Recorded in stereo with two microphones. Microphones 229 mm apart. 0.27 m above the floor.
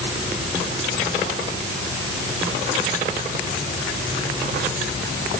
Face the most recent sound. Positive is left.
No sound to turn to.